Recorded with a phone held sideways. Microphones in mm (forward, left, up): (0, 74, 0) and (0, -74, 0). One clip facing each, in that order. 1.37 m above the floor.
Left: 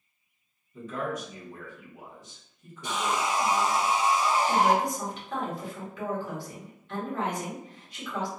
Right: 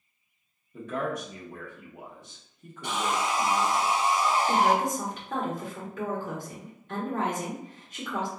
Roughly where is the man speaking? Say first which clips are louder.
Right 2 dB; right.